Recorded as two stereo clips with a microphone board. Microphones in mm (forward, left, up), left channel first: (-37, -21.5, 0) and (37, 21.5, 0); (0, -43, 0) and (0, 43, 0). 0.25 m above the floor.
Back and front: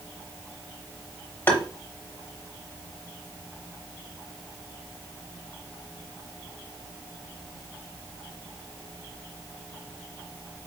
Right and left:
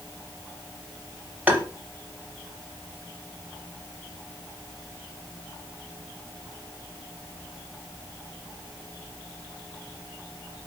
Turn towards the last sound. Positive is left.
turn(degrees=155)